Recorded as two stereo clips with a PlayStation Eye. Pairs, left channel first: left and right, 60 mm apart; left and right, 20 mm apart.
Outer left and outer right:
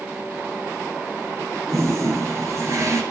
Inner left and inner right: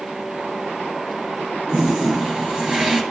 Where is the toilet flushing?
60° right (ahead or behind), 3 m.